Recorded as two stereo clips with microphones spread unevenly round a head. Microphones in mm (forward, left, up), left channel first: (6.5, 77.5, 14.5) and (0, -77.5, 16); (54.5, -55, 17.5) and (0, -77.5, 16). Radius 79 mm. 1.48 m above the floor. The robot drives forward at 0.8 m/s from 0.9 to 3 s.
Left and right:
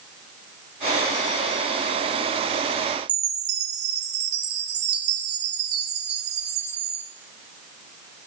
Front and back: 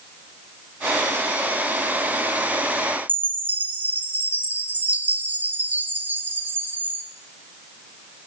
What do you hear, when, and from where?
3.1 s a chime: 105° right, 1.1 m